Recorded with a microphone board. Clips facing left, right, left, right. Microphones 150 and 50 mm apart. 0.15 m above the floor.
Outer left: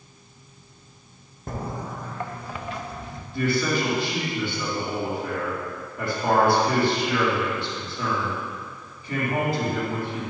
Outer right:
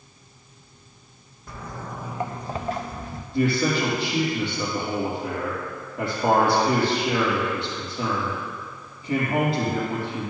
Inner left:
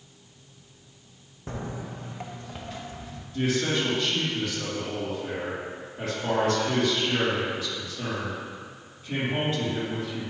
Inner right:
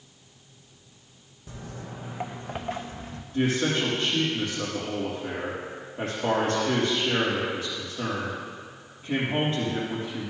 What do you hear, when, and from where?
1.5 s footsteps: 50° left (ahead or behind), 0.6 m; by 3.2 s 45° right (ahead or behind), 1.7 m
3.3 s a man speaking: 30° right (ahead or behind), 4 m